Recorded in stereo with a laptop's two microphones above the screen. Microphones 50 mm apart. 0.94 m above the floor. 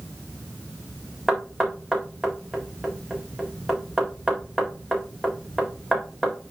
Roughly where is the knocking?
Centre.